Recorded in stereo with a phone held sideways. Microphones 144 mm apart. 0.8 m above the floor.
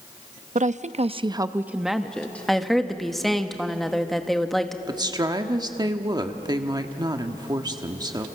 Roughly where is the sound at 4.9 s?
Right.